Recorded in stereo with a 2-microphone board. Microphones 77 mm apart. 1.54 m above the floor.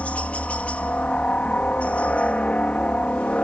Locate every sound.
0.0 s a helicopter: 15° left (ahead or behind)